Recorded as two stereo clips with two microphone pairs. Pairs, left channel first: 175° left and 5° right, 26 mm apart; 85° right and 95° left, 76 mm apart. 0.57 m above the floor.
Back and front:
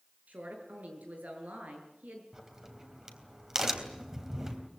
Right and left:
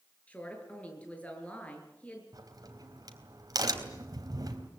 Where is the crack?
65° left, 3.5 m.